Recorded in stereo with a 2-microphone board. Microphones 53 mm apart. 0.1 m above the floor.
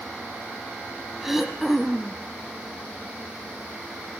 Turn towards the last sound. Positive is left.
turn(degrees=-5)  # may be behind; listen again after turning